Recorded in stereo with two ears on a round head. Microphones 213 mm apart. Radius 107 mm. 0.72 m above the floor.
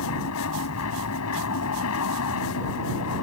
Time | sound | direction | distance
0.0 | an aircraft | 70° left (ahead or behind) | ?